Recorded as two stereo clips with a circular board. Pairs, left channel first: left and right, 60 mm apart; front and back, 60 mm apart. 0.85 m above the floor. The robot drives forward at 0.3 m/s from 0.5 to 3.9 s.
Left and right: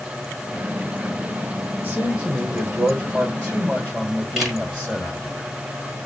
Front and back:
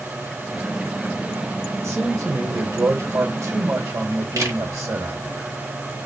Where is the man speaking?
155° right, 2.5 m; by 5.4 s 160° right, 3 m.